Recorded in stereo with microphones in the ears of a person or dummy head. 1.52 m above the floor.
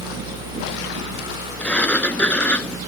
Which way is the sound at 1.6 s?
10° left (ahead or behind).